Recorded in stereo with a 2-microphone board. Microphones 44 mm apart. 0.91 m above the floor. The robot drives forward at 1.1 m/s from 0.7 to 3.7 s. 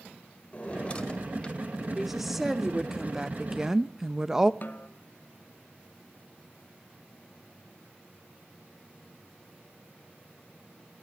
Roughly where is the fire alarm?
No fire alarm in this recording.